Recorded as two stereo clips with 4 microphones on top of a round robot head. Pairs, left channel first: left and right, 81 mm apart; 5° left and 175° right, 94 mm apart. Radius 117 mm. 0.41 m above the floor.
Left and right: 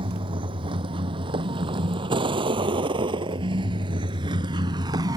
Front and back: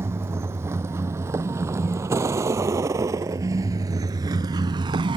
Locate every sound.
0.0 s a vehicle: 110° right; by 5.2 s 135° right